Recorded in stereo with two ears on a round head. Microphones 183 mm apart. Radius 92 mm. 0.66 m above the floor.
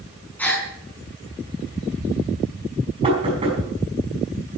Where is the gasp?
10° left (ahead or behind), 5 m.